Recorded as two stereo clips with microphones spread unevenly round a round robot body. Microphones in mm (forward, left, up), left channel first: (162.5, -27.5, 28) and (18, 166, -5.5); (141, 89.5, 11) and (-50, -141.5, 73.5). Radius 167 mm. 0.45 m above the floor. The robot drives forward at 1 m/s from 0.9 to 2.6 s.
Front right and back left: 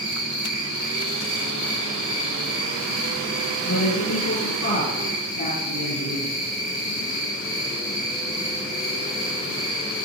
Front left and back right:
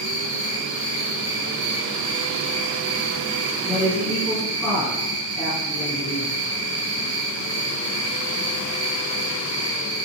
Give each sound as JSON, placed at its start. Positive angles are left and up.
{"t": 0.0, "sound": "an insect", "azimuth_deg": -75, "distance_m": 5.5}
{"t": 3.6, "sound": "a man speaking", "azimuth_deg": -40, "distance_m": 5.0}